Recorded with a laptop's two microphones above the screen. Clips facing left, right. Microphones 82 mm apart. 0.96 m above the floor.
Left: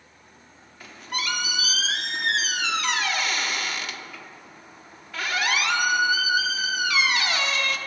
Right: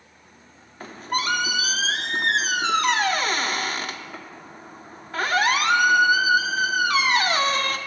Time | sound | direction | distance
0.8 | a squeak | 40° right (ahead or behind) | 0.6 m